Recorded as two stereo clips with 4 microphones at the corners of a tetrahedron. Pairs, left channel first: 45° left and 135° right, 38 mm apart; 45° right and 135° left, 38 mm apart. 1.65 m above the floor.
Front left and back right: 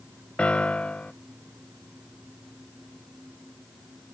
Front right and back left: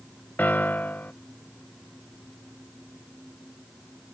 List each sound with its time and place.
0.4 s a piano: 15° right